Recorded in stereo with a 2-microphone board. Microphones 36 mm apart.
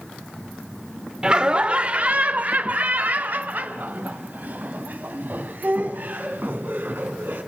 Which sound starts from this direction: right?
Laughter, at 1.2 s.